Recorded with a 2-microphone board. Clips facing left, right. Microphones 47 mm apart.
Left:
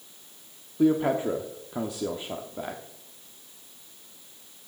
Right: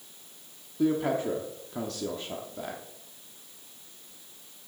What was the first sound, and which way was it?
A man speaking, 15° left (ahead or behind).